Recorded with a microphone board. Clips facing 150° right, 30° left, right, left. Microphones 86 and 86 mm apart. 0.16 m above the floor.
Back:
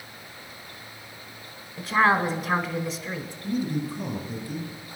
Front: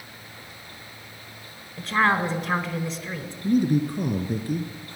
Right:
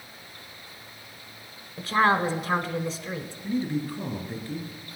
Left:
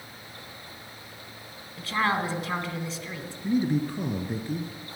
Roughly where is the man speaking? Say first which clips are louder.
Front 7 dB, left 3 dB; ahead left.